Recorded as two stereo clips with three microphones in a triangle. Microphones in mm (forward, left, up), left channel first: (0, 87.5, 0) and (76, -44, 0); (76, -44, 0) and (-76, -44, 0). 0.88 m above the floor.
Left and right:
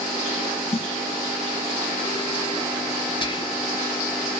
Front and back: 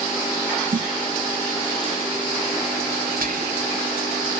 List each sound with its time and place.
0.7 s a snare drum: 160° left, 0.5 m
3.2 s whispering: 175° left, 2.5 m